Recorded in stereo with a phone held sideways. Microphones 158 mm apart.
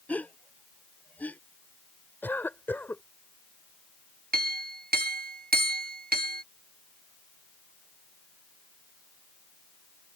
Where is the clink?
75° right (ahead or behind).